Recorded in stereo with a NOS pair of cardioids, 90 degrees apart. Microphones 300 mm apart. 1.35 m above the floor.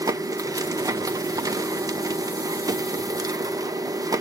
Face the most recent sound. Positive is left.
turn(degrees=-10)